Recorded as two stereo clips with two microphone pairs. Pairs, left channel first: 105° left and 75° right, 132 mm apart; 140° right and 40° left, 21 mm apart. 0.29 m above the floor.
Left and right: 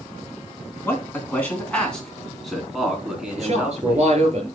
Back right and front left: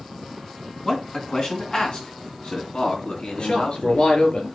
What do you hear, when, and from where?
0.8 s a man speaking: 175° left, 3 m; by 4.1 s 155° right, 4 m
3.4 s a man speaking: 115° right, 6.5 m